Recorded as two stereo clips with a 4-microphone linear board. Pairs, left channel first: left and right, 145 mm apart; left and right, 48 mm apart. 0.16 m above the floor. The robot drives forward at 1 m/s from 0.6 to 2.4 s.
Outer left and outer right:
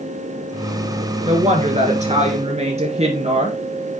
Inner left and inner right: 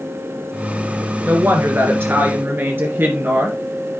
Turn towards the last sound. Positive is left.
turn(degrees=-50)  # may be behind; listen again after turning